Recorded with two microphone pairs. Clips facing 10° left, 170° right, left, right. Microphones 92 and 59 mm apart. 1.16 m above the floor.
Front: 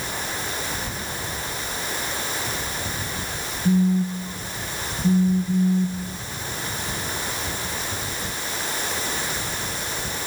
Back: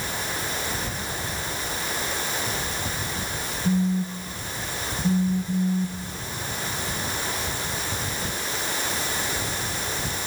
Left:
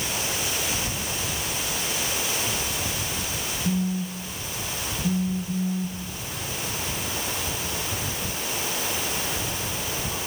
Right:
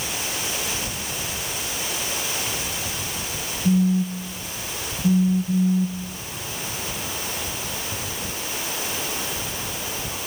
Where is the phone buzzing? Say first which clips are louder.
Front 4 dB, right 8 dB; 35° right, 1.3 m.